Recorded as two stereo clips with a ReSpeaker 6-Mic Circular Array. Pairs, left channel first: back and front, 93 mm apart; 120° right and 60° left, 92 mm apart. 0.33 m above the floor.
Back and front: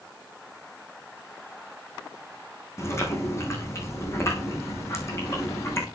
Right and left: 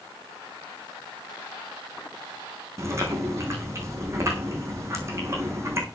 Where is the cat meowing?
No cat meowing in this recording.